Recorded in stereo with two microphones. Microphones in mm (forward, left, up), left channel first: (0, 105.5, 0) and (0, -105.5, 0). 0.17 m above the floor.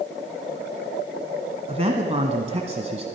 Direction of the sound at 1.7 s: 30° right (ahead or behind).